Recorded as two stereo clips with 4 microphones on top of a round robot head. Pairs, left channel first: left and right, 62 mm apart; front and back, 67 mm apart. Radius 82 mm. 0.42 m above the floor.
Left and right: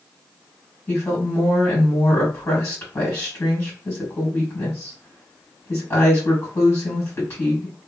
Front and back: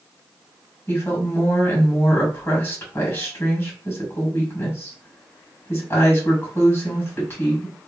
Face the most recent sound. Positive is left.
turn(degrees=35)